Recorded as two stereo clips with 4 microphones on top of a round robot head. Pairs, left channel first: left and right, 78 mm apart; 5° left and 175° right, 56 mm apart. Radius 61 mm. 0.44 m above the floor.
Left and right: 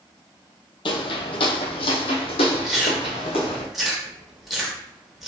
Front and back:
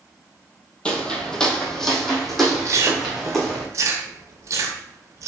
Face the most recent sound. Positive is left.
turn(degrees=-175)